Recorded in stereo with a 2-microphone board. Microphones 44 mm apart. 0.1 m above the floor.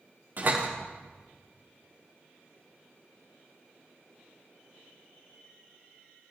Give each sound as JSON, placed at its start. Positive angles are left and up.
{"t": 0.4, "sound": "a door slam", "side_deg": -45, "distance_m": 7.0}